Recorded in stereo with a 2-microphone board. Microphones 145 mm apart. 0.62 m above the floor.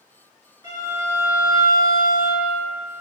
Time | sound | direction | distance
0.6 | a violin | 30° right (ahead or behind) | 2.5 m